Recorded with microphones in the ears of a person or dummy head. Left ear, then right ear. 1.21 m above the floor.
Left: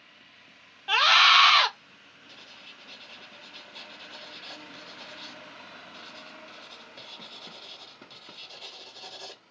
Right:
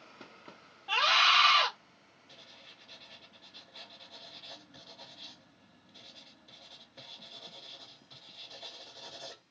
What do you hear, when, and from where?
0.9 s a scream: 40° left (ahead or behind), 0.7 m
2.3 s writing: 70° left (ahead or behind), 1.4 m